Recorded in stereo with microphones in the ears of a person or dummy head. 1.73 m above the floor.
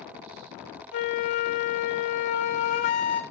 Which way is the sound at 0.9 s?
35° left (ahead or behind).